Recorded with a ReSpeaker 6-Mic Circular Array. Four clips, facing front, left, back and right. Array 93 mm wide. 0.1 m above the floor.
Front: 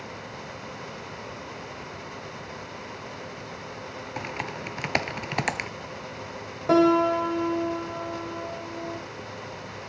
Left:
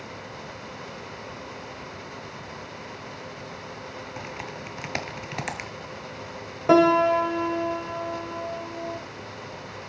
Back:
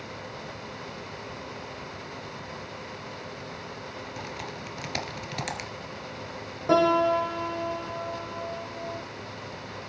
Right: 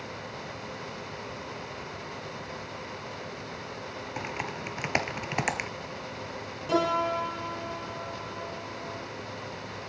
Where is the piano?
80° left, 3.5 m.